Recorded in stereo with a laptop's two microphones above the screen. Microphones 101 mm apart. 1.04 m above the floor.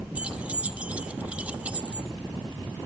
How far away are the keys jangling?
About 1.1 m.